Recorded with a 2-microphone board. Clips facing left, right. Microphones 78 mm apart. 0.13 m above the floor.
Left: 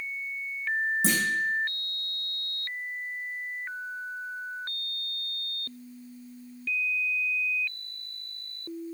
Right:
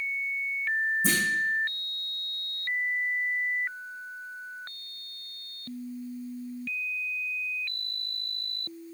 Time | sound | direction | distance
1.0 | a clunk | 80° left | 5 m